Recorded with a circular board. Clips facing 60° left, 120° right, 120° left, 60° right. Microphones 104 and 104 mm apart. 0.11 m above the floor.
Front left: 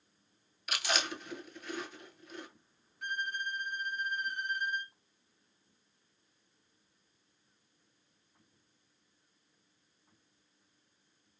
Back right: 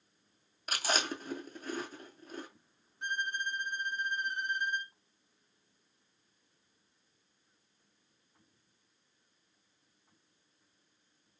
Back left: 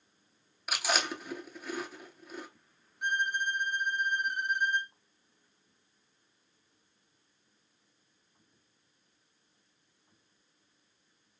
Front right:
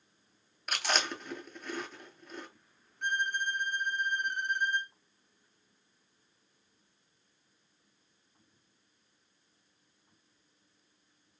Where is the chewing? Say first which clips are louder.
Back right 1 dB, back left 1 dB; 160° right, 0.7 m.